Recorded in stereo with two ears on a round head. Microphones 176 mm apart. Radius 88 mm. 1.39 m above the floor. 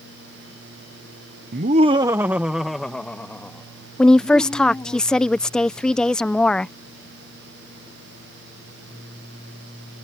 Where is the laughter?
50° right (ahead or behind); by 5.0 s 15° left (ahead or behind).